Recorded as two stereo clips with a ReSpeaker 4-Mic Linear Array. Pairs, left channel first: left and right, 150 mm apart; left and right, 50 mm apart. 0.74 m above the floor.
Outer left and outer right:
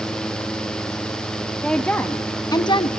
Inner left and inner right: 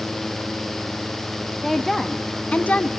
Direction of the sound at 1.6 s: 5° left (ahead or behind).